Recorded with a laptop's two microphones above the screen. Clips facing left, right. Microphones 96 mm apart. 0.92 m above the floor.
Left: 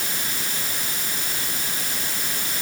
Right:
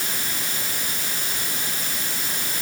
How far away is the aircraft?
No aircraft in this recording.